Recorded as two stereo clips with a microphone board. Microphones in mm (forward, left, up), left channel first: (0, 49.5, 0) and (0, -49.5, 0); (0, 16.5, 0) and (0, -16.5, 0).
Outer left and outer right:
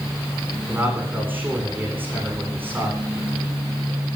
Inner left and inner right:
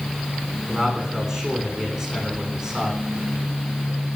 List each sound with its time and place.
0.7 s a man speaking: 20° right (ahead or behind), 10 m